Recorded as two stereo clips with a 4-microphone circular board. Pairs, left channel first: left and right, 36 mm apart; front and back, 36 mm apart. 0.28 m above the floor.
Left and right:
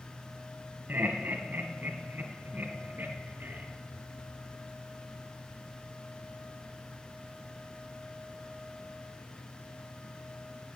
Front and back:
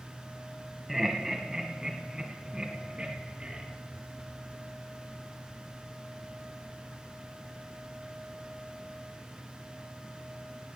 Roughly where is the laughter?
Right.